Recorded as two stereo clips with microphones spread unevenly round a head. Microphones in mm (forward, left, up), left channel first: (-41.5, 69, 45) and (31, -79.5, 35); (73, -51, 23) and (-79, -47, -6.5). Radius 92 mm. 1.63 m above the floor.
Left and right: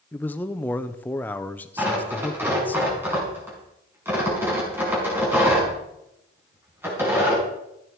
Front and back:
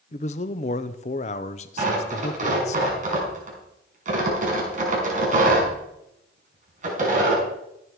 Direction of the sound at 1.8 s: 140° right.